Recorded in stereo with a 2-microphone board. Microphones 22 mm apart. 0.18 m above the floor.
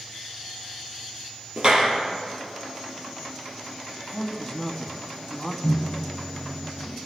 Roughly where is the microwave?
Left.